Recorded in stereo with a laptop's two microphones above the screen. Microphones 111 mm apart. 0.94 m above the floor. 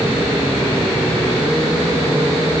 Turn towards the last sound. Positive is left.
No sound to turn to.